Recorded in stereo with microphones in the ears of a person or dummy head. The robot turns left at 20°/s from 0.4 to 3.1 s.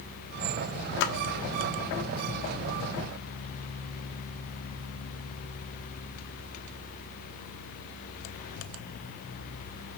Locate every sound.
1.0 s a splash: 65° left (ahead or behind), 1.2 m